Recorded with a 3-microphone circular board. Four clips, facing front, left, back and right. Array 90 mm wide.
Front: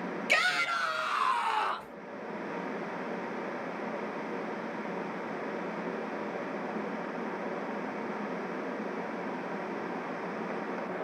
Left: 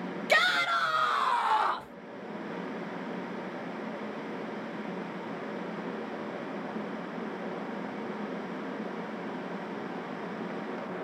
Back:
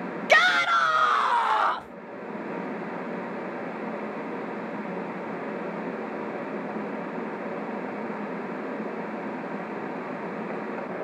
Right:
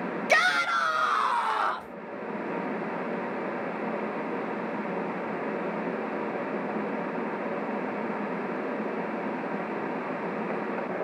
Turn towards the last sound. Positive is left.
turn(degrees=-175)